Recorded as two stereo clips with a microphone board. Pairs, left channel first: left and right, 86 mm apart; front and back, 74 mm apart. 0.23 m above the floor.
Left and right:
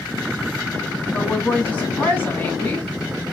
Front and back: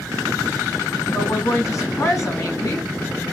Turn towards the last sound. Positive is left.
turn(degrees=25)